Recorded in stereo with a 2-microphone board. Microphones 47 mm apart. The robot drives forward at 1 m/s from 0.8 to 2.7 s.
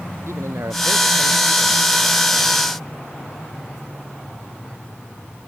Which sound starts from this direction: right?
A man speaking, at 0.3 s.